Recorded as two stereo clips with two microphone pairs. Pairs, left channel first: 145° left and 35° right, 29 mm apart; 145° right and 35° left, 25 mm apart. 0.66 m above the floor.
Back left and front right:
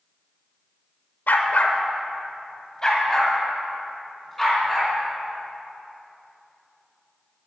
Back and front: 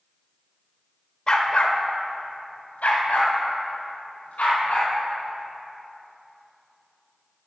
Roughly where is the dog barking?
Behind.